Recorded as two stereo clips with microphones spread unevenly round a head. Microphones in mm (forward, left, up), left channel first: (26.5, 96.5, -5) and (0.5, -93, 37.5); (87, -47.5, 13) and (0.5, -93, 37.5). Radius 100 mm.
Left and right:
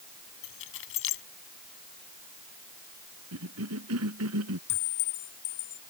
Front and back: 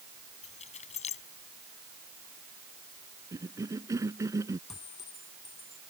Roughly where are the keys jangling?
Ahead left.